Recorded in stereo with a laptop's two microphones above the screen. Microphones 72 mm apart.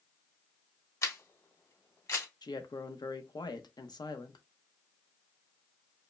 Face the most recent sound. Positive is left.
turn(degrees=80)